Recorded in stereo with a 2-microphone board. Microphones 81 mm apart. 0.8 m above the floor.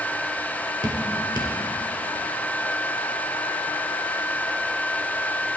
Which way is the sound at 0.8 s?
65° right (ahead or behind).